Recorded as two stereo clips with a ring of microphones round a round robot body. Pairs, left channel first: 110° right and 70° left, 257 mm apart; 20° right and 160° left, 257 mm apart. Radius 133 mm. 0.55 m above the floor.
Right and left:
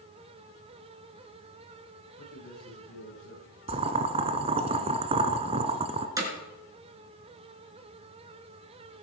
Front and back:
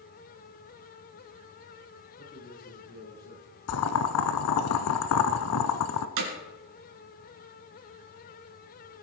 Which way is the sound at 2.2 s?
85° right.